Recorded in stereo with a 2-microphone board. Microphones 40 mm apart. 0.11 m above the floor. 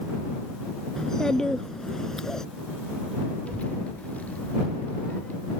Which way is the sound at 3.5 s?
40° left (ahead or behind).